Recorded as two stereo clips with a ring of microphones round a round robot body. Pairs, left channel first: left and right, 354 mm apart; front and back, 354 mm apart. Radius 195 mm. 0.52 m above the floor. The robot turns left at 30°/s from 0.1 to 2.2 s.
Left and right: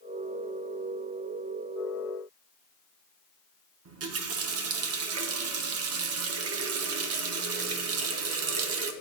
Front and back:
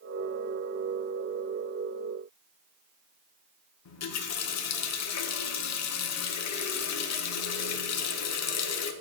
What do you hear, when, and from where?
3.9 s a running tap: 45° right, 0.7 m